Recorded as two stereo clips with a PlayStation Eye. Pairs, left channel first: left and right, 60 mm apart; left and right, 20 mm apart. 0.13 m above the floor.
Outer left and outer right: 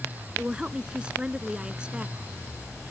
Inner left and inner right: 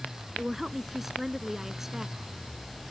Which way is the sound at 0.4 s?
15° right (ahead or behind).